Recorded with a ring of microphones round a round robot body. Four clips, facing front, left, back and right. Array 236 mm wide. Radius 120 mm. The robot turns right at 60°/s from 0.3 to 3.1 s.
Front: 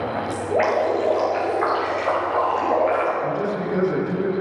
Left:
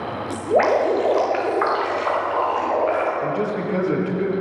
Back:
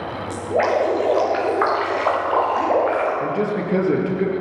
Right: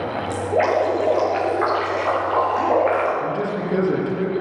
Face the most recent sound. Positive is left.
turn(degrees=-165)